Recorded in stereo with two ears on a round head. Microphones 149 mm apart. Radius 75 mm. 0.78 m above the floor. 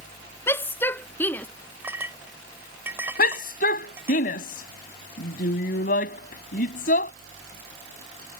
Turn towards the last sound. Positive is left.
turn(degrees=55)  # may be behind; listen again after turning